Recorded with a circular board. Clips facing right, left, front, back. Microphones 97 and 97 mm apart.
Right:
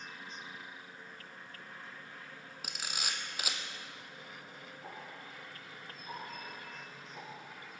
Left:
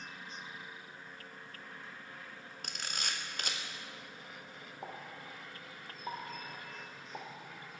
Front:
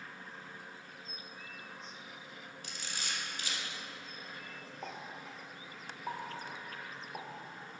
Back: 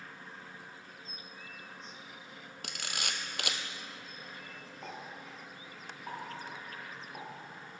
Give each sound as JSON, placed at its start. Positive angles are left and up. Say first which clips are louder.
{"t": 2.6, "sound": "a camera shutter", "louder": "even, back 4 dB", "azimuth_deg": -175, "distance_m": 1.1}
{"t": 4.8, "sound": "a pop", "louder": "left 3 dB, even", "azimuth_deg": 70, "distance_m": 4.5}